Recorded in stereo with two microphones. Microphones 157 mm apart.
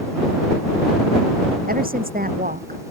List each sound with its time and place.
1.7 s a woman speaking: 70° right (ahead or behind)